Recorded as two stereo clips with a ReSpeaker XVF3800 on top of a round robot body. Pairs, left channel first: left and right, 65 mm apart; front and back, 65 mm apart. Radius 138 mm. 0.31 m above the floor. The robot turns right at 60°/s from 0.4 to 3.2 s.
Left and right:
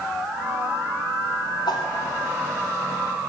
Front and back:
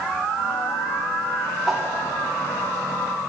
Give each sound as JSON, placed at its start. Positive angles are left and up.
{"t": 1.7, "sound": "a whoosh", "azimuth_deg": 95, "distance_m": 0.9}